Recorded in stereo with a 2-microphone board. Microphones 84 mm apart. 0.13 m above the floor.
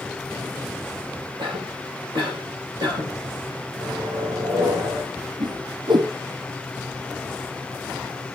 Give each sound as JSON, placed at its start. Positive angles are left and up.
{"t": 1.4, "sound": "a cough", "side_deg": -70, "distance_m": 4.5}
{"t": 3.8, "sound": "a microwave", "side_deg": -70, "distance_m": 6.5}
{"t": 5.4, "sound": "a whoosh", "side_deg": -60, "distance_m": 1.1}